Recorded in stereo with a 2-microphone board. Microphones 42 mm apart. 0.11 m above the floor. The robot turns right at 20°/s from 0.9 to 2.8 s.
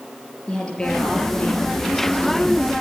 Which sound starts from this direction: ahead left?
A woman speaking, at 0.5 s.